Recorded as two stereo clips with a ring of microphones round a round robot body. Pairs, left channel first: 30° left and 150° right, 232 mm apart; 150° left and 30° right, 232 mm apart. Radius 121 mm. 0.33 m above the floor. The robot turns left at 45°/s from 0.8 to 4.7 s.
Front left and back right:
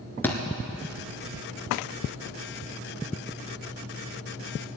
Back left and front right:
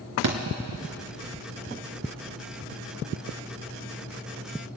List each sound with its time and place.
0.2 s a thud: 50° right, 1.8 m